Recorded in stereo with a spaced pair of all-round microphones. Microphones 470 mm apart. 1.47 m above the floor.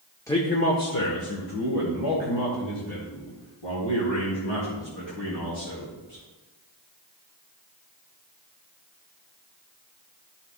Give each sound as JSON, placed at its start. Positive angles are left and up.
{"t": 0.3, "sound": "a man speaking", "side_deg": 5, "distance_m": 0.7}